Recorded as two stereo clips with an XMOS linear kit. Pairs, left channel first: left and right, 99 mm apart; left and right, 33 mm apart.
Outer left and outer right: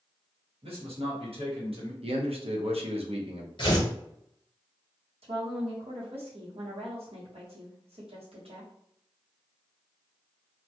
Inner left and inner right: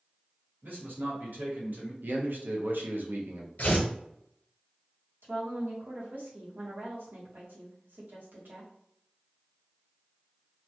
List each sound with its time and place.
0.6 s a man speaking: 80° right, 1.1 m
2.0 s a man speaking: 85° right, 0.6 m
3.6 s tearing paper: 50° left (ahead or behind), 0.8 m
5.2 s a woman speaking: 85° right, 1.0 m